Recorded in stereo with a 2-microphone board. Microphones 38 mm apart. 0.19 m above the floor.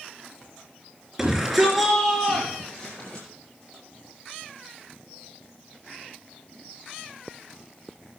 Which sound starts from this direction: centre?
A shout, at 1.2 s.